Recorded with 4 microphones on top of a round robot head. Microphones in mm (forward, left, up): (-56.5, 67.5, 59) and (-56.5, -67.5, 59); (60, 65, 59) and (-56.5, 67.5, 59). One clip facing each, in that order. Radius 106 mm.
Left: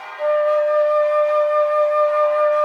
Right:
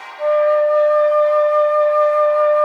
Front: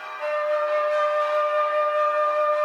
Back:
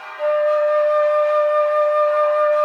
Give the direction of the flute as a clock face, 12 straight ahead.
7 o'clock.